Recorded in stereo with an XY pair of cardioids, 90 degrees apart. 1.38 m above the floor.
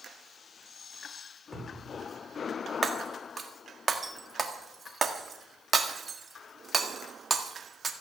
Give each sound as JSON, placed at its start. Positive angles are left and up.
{"t": 1.5, "sound": "a cupboard door", "azimuth_deg": 20, "distance_m": 3.0}
{"t": 2.8, "sound": "breaking glass", "azimuth_deg": -40, "distance_m": 1.7}